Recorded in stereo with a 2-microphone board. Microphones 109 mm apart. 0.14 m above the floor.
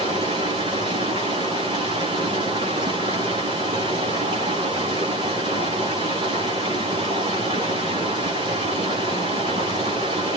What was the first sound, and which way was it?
Running water, 45° right (ahead or behind).